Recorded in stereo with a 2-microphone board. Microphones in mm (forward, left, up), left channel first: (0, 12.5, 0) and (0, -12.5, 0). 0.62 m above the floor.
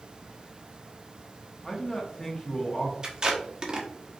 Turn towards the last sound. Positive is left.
turn(degrees=-35)  # may be behind; listen again after turning